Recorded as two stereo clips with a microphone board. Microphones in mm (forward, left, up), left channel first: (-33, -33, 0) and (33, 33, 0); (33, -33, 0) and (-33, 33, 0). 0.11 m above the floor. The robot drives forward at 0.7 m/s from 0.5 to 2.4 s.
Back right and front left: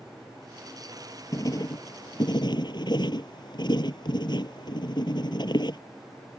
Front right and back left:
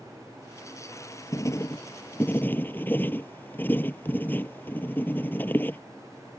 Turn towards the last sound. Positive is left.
turn(degrees=-110)